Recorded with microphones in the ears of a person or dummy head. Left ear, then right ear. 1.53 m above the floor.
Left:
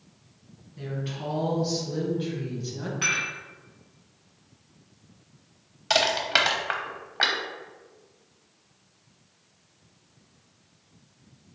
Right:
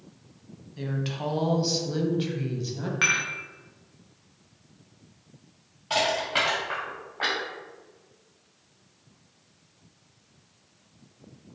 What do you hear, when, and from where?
0.8 s a woman speaking: 65° right (ahead or behind), 1.5 m; by 2.9 s centre (ahead or behind), 0.7 m
3.0 s dishes clattering: 20° right (ahead or behind), 0.5 m
5.9 s crushing: 70° left (ahead or behind), 1.0 m